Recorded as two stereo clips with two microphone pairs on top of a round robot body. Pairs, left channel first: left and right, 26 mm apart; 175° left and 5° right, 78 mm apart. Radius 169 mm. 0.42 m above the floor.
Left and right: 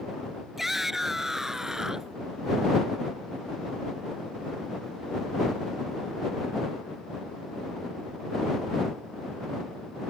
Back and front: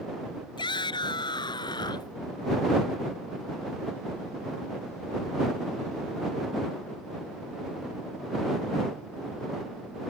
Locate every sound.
0.6 s a shout: 170° right; by 2.1 s 155° right